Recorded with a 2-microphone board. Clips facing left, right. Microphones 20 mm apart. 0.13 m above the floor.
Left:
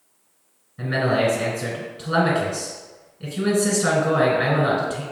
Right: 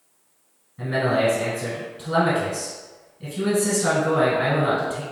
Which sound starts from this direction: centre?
A man speaking, at 0.8 s.